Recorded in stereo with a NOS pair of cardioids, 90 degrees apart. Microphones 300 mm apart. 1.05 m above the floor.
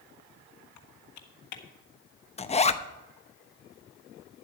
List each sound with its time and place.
0.8 s typing on a keyboard: 70° left, 1.6 m
2.4 s a zipper: 20° left, 0.8 m